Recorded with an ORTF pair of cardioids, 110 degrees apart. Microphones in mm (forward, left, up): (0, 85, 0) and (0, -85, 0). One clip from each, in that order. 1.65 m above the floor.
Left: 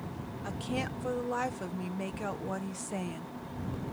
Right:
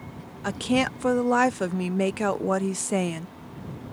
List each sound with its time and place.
0.4 s a woman speaking: 60° right